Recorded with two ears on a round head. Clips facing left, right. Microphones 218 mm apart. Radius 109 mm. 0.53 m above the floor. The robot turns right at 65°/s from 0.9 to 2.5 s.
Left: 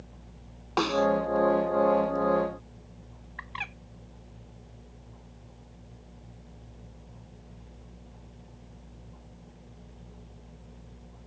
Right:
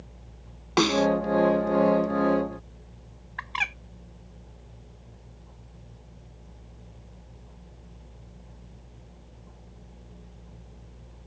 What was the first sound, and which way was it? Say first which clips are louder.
A snare drum: right 4 dB; 35° right (ahead or behind).